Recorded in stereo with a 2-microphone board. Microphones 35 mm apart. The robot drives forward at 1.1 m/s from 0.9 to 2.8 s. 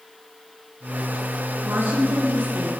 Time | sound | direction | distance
1.6 | a woman speaking | 90° right | 9 m